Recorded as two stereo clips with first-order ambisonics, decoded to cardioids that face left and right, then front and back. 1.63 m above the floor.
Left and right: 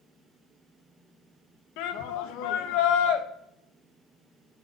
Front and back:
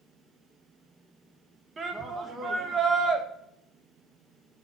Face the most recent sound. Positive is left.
turn(degrees=110)